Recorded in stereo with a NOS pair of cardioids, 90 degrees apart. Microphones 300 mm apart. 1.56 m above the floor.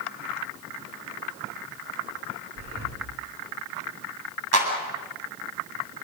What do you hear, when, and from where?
2.5 s breathing: 50° right, 4 m
4.5 s a clap: 55° right, 9 m